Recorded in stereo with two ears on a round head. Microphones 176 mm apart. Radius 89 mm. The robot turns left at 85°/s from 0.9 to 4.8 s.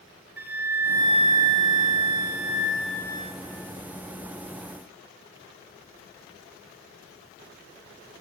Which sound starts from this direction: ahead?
A flute, at 0.4 s.